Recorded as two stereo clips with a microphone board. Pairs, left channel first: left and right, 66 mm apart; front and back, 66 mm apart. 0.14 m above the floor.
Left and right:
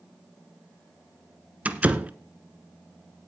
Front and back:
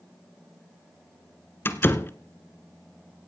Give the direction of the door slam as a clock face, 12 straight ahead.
1 o'clock.